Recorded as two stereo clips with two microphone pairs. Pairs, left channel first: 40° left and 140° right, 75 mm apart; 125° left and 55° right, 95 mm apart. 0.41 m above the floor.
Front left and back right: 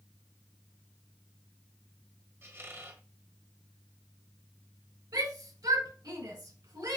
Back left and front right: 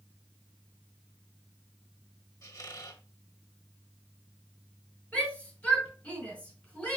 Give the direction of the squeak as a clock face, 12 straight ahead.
6 o'clock.